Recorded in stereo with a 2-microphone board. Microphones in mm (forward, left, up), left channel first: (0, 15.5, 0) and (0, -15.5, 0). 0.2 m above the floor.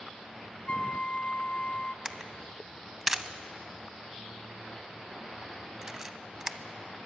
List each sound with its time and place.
0.7 s a flute: 40° left (ahead or behind), 1.1 m
2.0 s a camera shutter: 15° right (ahead or behind), 0.5 m